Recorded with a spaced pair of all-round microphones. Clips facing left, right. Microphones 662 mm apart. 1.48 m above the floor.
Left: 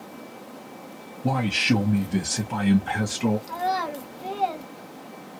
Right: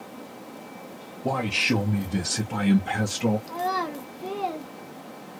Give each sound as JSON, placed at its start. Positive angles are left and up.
{"t": 1.2, "sound": "a man speaking", "side_deg": 35, "distance_m": 0.7}
{"t": 3.5, "sound": "a child speaking", "side_deg": 20, "distance_m": 0.5}